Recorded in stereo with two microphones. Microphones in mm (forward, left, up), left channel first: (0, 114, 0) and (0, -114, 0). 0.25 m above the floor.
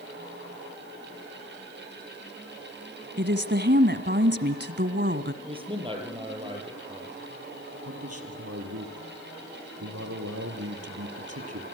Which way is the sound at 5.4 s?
20° right (ahead or behind).